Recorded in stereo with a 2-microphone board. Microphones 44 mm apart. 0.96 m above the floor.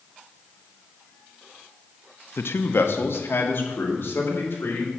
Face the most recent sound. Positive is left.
turn(degrees=60)  # may be behind; listen again after turning